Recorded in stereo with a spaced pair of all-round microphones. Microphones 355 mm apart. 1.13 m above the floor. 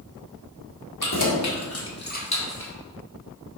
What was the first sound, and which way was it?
Keys jangling, 60° left (ahead or behind).